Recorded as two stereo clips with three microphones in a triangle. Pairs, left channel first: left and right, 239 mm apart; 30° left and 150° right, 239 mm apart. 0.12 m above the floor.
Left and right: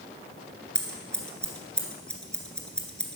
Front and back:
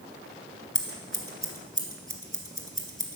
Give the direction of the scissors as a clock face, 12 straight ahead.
12 o'clock.